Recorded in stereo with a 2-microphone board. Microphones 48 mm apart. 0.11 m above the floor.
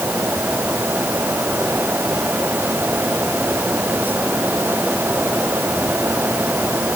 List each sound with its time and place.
Only background noise.